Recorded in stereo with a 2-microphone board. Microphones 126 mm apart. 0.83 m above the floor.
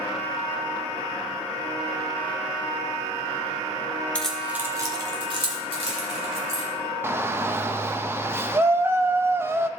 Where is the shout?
20° right (ahead or behind), 0.6 m.